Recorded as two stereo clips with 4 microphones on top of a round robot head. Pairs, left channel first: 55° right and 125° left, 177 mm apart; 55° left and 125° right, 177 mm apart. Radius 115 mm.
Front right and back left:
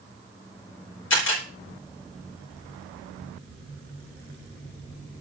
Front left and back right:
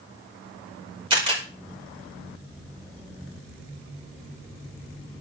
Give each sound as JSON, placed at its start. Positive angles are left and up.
{"t": 1.1, "sound": "a camera shutter", "azimuth_deg": -60, "distance_m": 6.5}